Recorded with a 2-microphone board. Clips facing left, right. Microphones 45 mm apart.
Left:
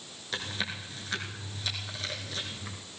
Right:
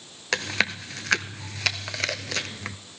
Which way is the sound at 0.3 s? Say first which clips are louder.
Right 9 dB; 85° right.